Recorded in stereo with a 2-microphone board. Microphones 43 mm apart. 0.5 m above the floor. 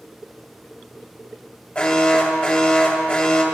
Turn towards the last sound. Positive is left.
turn(degrees=35)  # may be behind; listen again after turning